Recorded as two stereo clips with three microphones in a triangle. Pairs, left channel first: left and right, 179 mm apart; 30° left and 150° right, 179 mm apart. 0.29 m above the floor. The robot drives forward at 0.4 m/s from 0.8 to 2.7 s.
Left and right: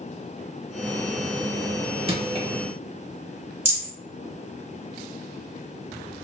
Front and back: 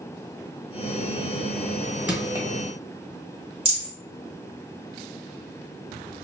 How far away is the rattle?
About 1.5 m.